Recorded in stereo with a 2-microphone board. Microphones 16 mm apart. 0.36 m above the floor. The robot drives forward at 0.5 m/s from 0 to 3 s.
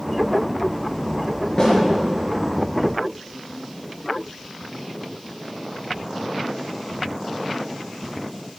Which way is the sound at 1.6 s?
40° left (ahead or behind).